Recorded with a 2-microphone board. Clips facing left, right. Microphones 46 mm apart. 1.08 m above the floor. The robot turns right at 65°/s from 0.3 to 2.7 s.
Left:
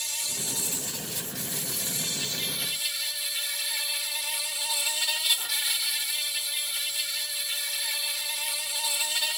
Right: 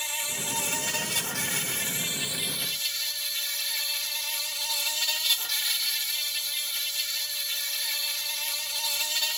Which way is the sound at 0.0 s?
150° right.